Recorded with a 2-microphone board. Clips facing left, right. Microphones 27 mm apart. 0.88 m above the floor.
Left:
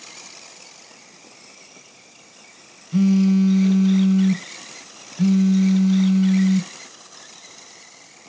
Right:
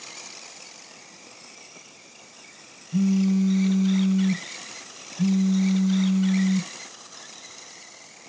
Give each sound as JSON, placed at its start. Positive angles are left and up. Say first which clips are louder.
{"t": 2.9, "sound": "a phone buzzing", "louder": "left 5 dB", "side_deg": 40, "distance_m": 0.5}